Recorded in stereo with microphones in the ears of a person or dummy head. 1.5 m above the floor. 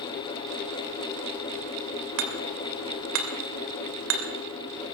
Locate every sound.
2.2 s hammering: 65° right (ahead or behind), 2.5 m